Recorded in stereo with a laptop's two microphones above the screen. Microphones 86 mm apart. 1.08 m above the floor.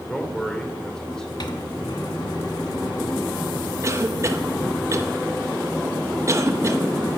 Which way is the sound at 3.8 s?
35° right (ahead or behind).